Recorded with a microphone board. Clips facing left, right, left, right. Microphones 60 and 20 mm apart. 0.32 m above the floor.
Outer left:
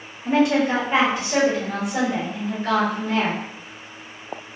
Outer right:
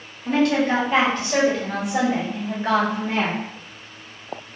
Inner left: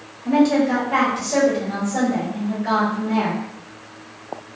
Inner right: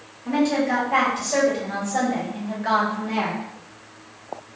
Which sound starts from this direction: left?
A woman speaking, at 0.2 s.